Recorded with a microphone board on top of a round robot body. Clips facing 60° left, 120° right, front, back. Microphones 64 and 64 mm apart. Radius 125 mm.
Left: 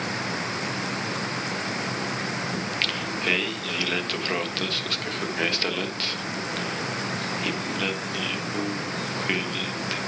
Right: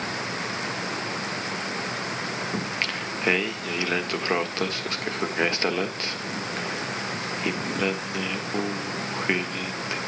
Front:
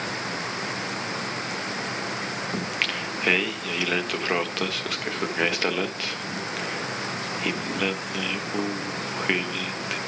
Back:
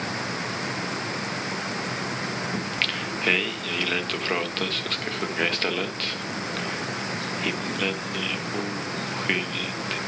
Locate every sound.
2.5 s singing: 75° right, 1.6 m